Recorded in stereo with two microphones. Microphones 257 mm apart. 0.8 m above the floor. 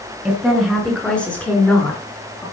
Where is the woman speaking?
5° right (ahead or behind), 7.5 m; by 2.4 s 10° left (ahead or behind), 9.5 m.